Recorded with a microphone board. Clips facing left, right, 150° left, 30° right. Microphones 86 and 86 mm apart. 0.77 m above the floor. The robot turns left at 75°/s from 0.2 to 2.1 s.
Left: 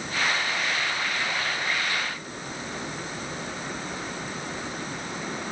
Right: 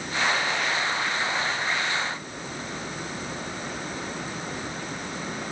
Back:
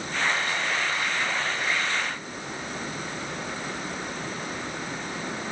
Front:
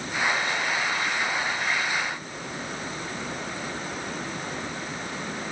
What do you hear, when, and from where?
Only background noise.